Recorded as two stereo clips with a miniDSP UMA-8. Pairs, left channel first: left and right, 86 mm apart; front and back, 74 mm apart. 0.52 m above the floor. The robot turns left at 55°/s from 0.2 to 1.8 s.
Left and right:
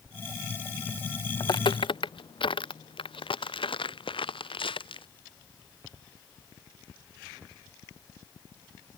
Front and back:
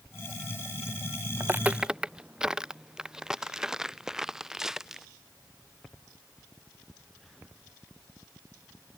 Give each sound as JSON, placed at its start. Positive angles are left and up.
{"t": 1.4, "sound": "footsteps", "azimuth_deg": 125}